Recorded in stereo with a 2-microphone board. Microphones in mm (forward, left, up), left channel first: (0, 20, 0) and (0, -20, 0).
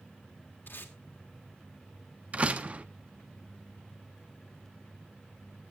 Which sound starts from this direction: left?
Tape being pulled, at 0.7 s.